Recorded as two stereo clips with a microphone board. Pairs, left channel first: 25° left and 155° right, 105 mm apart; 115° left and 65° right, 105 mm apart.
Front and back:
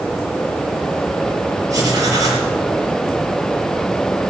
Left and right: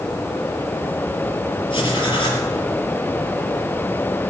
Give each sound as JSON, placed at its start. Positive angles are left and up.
{"t": 1.7, "sound": "writing", "azimuth_deg": 145, "distance_m": 4.0}